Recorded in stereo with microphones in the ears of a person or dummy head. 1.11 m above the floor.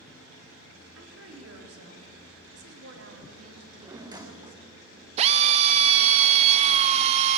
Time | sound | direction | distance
0.9 | a woman speaking | 75° right (ahead or behind) | 2 m
3.6 | a drawer | 15° right (ahead or behind) | 0.7 m
5.2 | a drill | 40° right (ahead or behind) | 0.6 m